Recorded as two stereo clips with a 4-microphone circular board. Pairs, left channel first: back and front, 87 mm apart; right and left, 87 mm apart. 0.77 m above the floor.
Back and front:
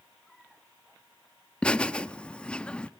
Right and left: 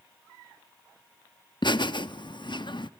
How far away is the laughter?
About 0.9 m.